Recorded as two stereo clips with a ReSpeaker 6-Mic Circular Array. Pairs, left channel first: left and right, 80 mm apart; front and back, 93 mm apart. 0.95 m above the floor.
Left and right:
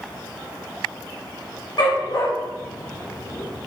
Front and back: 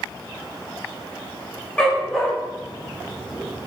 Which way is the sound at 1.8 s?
75° left.